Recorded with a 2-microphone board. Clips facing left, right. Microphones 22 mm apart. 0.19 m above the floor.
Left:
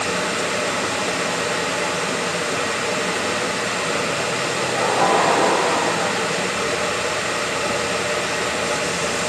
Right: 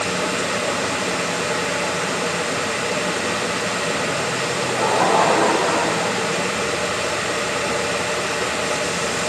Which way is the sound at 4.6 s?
5° left (ahead or behind).